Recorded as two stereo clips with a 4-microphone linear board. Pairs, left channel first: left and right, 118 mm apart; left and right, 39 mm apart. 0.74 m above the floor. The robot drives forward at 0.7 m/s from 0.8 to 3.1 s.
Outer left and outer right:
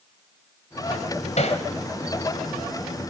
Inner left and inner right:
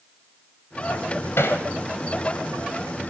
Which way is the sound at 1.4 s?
70° left (ahead or behind).